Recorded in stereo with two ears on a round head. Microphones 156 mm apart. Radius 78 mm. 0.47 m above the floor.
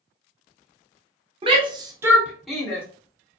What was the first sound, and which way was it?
A shout, 30° right (ahead or behind).